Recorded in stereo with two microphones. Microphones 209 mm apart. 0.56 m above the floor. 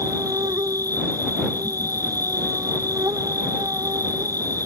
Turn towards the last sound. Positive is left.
turn(degrees=-15)  # may be behind; listen again after turning